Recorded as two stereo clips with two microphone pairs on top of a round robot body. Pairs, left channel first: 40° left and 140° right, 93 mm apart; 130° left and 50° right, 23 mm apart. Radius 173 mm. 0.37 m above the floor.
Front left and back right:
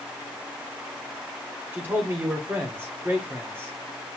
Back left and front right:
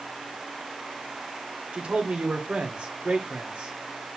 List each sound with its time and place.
1.7 s a man speaking: 75° right, 2 m